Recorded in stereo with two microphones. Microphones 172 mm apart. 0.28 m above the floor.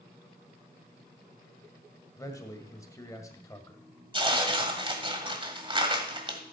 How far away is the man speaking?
About 1.5 m.